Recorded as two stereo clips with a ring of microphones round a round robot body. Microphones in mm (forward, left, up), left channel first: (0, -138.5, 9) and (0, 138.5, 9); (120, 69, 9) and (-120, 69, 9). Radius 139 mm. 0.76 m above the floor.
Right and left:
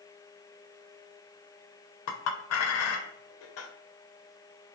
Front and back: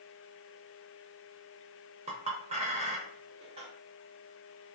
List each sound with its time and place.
2.1 s a clink: 115° right, 0.5 m